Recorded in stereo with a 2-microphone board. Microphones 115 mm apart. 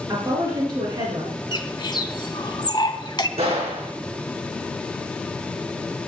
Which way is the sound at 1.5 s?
40° left (ahead or behind).